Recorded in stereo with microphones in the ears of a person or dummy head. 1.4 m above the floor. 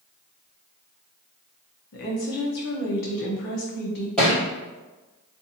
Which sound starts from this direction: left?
A woman speaking, at 1.9 s.